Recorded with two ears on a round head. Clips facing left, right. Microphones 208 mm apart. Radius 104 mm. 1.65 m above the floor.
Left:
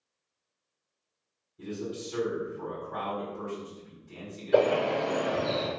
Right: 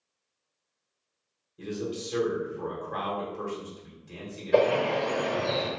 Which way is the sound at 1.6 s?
70° right (ahead or behind).